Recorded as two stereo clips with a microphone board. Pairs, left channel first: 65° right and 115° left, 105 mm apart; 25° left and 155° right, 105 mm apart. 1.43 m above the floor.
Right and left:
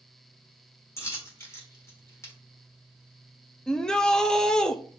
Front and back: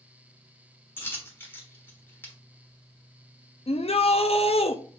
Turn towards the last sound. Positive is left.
turn(degrees=15)